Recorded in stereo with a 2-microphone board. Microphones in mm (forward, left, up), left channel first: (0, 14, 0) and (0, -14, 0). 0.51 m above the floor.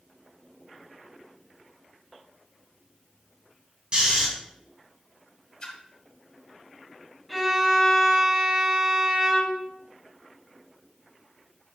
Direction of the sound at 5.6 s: 25° left (ahead or behind).